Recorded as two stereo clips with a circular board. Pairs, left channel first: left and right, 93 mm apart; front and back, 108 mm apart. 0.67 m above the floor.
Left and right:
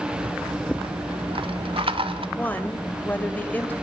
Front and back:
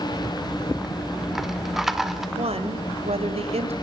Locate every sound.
0.1 s a rattle: 95° right, 1.6 m
2.4 s a woman speaking: 160° left, 2.5 m